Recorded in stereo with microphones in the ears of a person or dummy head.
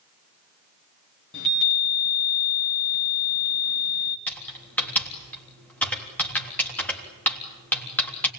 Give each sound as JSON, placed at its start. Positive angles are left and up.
{"t": 1.3, "sound": "a chime", "side_deg": 65, "distance_m": 1.7}
{"t": 4.3, "sound": "typing on a keyboard", "side_deg": 10, "distance_m": 3.5}